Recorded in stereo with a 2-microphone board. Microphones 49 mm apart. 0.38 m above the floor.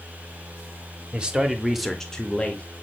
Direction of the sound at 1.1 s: 20° right (ahead or behind).